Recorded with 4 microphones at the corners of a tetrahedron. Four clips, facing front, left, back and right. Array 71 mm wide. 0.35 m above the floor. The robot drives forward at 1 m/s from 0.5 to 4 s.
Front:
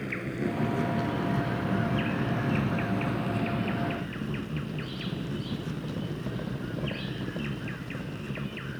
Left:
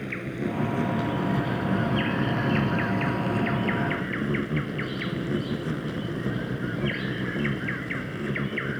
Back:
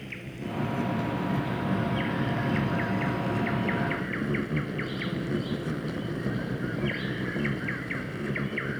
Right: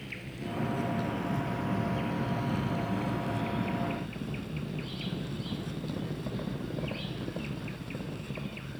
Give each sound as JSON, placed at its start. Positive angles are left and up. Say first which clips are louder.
{"t": 0.0, "sound": "an insect", "louder": "left 10 dB, front 6 dB", "azimuth_deg": 50}